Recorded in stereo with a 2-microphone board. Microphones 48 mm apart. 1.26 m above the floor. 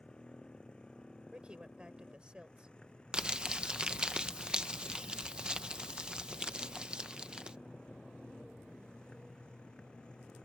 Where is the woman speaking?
20° right (ahead or behind).